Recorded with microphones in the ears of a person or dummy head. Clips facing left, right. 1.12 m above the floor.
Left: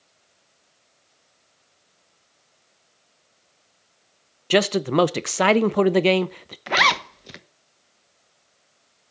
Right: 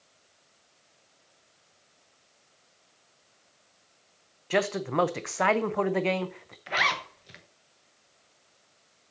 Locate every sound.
4.5 s a man speaking: 45° left (ahead or behind), 0.6 m
6.7 s a zipper: 60° left (ahead or behind), 1.1 m